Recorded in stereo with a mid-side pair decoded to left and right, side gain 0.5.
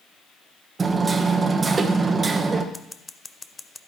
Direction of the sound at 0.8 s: 30° right.